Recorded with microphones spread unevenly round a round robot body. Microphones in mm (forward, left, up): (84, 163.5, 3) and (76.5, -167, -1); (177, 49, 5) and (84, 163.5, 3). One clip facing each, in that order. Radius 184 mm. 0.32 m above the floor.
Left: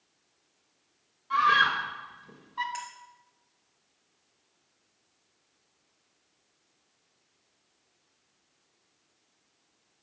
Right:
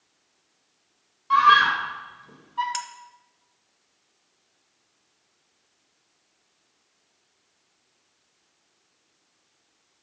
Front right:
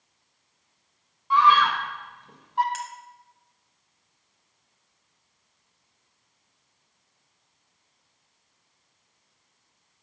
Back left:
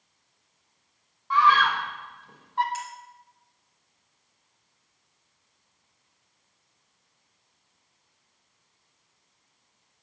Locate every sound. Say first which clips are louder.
1.3 s a scream: right 6 dB, front right 2 dB; 90° right, 1.5 m; by 2.6 s 15° left, 1.6 m
2.7 s cutlery clinking: right 5 dB, even; 75° right, 1.1 m